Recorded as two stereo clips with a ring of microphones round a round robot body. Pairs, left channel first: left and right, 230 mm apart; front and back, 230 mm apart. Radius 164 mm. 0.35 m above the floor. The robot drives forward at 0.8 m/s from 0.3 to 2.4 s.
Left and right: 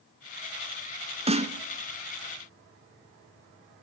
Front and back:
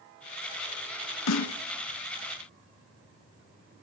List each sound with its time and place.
1.3 s a snare drum: 25° right, 2 m; by 1.6 s 30° right, 1.8 m